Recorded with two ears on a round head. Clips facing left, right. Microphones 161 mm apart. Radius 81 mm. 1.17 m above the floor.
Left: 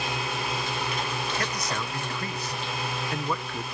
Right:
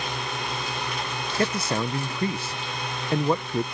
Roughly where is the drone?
Centre.